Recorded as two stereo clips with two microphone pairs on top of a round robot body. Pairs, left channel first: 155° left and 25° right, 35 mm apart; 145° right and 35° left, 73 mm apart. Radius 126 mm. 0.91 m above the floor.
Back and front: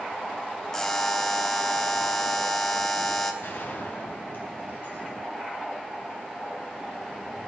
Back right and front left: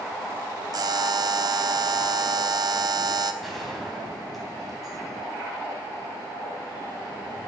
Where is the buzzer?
75° left, 1.1 m.